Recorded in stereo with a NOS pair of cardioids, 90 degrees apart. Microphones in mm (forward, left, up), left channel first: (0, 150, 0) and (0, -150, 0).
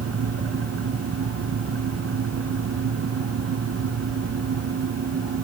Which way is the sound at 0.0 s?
50° right.